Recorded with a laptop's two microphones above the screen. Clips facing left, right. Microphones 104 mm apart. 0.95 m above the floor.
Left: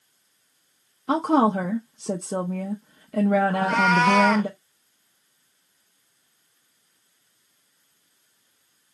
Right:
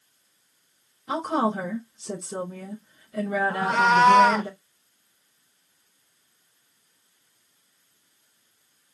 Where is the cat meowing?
25° right (ahead or behind), 0.9 m.